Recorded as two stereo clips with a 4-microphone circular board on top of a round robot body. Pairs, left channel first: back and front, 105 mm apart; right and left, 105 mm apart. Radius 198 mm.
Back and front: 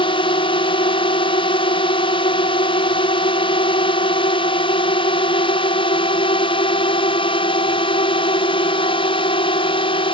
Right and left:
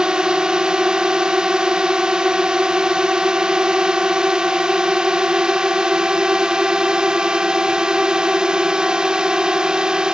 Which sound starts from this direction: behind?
A drone, at 0.0 s.